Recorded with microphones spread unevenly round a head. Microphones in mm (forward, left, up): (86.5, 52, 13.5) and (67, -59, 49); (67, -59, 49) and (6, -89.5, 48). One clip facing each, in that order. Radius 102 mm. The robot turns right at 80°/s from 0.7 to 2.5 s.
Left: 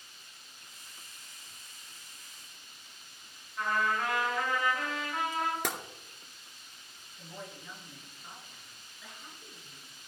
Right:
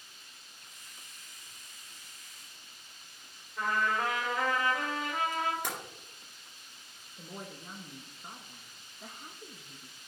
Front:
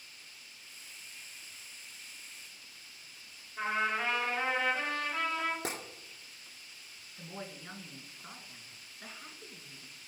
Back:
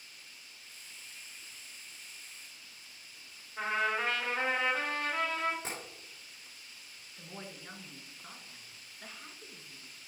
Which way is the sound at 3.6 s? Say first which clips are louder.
Even, even; 105° right.